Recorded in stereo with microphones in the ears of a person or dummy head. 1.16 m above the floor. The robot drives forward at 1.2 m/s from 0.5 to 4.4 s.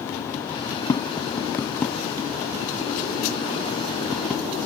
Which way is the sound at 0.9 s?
25° left (ahead or behind).